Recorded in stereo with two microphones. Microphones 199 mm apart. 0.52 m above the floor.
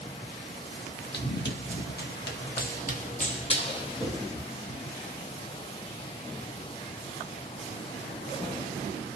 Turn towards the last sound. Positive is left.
turn(degrees=15)  # may be behind; listen again after turning